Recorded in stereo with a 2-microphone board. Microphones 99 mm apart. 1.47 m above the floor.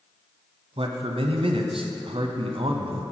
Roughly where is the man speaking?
Right.